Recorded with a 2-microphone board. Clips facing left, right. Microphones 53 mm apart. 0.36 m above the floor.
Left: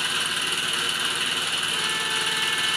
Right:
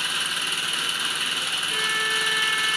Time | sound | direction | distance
0.0 | an engine running | centre (ahead or behind) | 1.7 m
1.7 | a violin | 55° right (ahead or behind) | 1.9 m